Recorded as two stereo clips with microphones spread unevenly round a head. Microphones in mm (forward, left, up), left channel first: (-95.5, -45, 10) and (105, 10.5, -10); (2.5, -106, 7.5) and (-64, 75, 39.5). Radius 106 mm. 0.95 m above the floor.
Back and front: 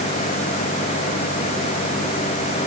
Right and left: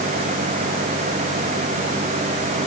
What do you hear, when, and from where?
Only background noise.